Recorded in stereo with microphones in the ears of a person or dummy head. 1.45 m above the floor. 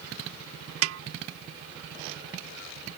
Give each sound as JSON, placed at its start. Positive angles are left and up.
{"t": 0.8, "sound": "a snare drum", "side_deg": -80}